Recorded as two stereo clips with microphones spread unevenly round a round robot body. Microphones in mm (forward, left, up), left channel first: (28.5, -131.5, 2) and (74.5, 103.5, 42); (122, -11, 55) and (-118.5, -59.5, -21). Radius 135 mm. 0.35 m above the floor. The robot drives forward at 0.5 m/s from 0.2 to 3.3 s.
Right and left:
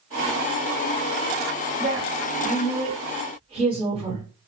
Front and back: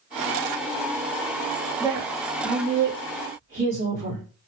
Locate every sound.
1.8 s a woman speaking: 130° left, 1.5 m; by 4.2 s 150° left, 2 m